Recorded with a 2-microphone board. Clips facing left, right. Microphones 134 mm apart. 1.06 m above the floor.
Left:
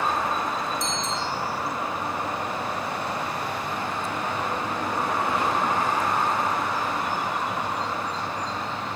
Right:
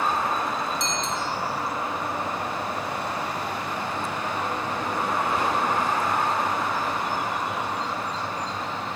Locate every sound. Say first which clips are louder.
0.8 s a bicycle bell: even; 80° right, 5 m